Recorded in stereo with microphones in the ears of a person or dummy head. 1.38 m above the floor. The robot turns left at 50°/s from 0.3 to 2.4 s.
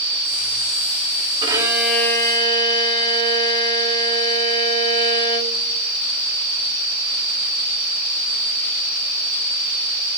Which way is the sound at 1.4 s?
155° right.